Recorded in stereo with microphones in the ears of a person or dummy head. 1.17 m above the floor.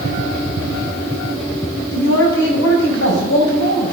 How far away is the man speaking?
About 6 m.